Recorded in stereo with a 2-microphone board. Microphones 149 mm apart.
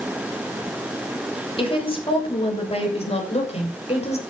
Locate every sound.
1.6 s a woman speaking: 35° left (ahead or behind), 7 m; by 4.2 s 45° left (ahead or behind), 6 m